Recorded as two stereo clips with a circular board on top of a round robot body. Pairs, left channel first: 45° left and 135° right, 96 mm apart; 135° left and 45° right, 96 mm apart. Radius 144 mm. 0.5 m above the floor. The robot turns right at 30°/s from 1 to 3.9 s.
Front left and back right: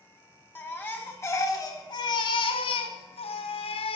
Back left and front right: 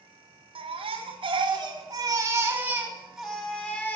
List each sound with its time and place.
0.6 s a baby crying: 25° right, 1.8 m; by 4.0 s 65° left, 1.8 m